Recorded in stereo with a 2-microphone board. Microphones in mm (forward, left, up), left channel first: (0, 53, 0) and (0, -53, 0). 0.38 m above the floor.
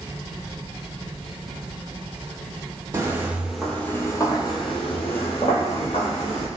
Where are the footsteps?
30° right (ahead or behind), 0.7 m; by 6.5 s 80° left, 1.6 m.